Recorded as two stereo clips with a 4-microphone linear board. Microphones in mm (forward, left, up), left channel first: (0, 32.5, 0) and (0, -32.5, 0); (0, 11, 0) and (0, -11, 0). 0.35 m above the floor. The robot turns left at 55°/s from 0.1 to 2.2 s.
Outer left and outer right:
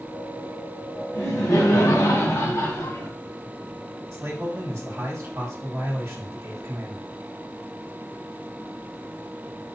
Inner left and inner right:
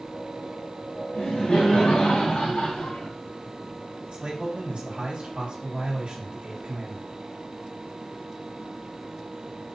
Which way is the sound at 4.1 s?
40° right (ahead or behind).